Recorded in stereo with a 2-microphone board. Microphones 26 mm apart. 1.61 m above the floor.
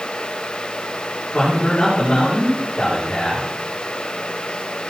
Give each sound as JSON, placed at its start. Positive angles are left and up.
{"t": 1.3, "sound": "a man speaking", "side_deg": 45, "distance_m": 4.0}